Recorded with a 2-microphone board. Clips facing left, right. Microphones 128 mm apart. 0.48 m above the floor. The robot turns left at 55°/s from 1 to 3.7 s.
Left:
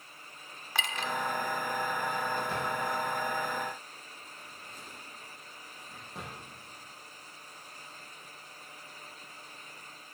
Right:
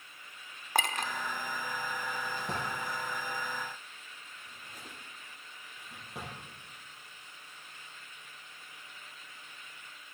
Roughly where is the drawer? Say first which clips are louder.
Left 4 dB; right.